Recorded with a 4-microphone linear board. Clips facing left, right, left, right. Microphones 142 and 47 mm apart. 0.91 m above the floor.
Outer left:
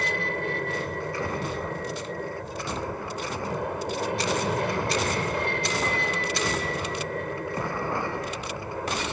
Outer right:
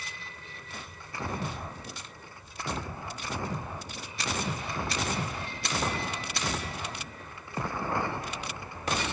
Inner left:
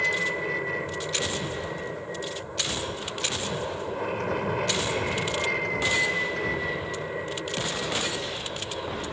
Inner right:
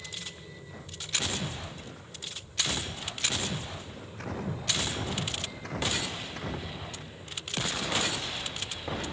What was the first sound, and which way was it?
An aircraft, 70° left (ahead or behind).